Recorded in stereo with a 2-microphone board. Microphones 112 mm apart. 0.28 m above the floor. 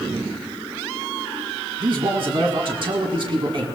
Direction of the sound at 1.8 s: 55° right (ahead or behind).